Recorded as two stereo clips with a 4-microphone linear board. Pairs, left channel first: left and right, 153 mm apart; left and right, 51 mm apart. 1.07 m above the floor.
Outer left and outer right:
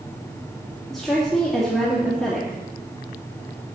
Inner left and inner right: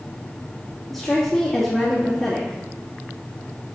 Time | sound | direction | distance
0.9 | a woman speaking | centre (ahead or behind) | 1.9 m